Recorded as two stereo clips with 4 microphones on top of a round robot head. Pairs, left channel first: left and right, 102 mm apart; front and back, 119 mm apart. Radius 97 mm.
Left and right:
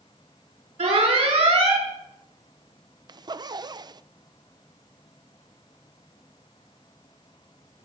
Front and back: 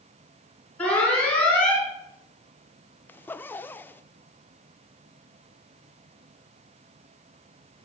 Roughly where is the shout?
I don't hear a shout.